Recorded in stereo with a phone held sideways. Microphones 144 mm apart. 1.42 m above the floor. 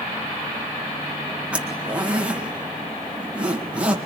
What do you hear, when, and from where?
1.5 s a zipper: 10° right (ahead or behind), 1.8 m